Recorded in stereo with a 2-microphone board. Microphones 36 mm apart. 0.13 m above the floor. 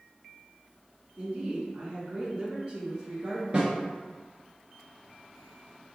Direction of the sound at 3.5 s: 35° right (ahead or behind).